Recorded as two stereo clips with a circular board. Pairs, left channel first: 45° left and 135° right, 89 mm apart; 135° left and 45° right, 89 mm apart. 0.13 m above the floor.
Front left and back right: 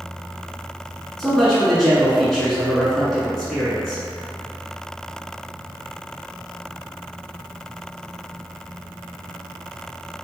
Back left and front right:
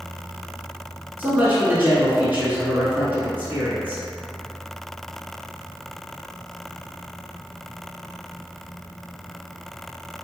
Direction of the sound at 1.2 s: 35° right.